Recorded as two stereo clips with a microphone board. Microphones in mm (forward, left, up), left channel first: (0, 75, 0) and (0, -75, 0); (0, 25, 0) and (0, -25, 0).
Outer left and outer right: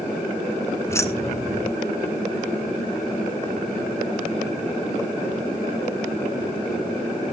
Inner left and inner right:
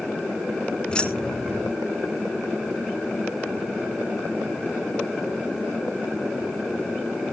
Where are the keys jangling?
20° left (ahead or behind), 0.8 m.